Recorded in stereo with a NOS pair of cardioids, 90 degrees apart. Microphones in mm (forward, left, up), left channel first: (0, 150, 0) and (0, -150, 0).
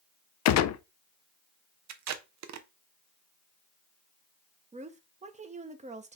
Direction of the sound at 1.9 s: 65° right.